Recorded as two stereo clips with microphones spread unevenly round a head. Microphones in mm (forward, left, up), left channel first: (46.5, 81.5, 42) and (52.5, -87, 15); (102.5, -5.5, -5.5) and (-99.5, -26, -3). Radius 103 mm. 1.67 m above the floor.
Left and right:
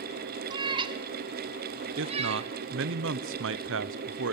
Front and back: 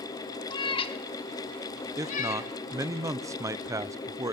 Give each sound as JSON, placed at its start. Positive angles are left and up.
{"t": 0.5, "sound": "a cat meowing", "azimuth_deg": -35, "distance_m": 1.3}
{"t": 2.0, "sound": "a man speaking", "azimuth_deg": -100, "distance_m": 0.8}